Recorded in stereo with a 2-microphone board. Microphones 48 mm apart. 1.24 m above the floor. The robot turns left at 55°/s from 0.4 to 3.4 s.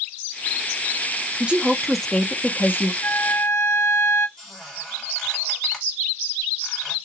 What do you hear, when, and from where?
1.4 s a woman speaking: 150° right, 0.5 m; by 2.9 s 125° left, 0.5 m
3.0 s a flute: 40° left (ahead or behind), 0.6 m; by 4.3 s 60° left (ahead or behind), 0.6 m
4.4 s a squeak: 5° left (ahead or behind), 1.7 m